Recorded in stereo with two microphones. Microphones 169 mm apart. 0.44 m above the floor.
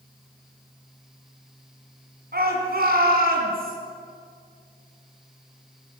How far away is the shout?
About 3.5 m.